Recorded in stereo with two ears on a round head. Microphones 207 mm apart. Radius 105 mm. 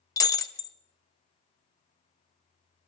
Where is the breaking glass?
15° left (ahead or behind), 0.8 m.